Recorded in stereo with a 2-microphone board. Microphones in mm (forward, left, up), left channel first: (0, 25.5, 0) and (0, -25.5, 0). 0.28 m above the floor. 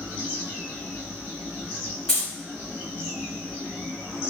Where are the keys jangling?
15° left (ahead or behind), 1.4 m.